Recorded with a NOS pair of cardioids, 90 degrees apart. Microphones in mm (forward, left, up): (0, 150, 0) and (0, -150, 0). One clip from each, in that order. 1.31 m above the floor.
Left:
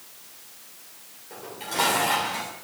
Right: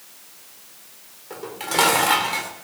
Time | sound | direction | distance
1.3 | dishes clattering | 65° right | 3 m